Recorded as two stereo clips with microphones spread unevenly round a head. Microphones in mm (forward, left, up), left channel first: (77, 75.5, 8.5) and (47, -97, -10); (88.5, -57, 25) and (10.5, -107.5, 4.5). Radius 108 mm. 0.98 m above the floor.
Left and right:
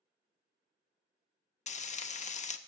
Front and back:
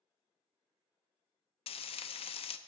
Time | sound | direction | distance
1.7 | frying | 35° left | 0.7 m